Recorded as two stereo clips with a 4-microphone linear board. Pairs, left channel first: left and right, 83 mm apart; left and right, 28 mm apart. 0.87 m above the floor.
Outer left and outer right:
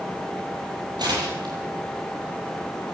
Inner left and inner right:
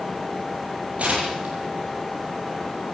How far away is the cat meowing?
No cat meowing in this recording.